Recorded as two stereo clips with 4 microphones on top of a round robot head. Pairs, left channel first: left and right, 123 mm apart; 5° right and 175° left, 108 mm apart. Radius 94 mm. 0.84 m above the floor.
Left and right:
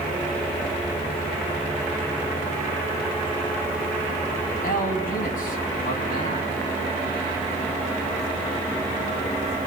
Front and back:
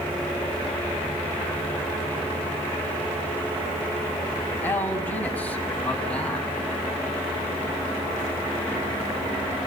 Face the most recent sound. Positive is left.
turn(degrees=80)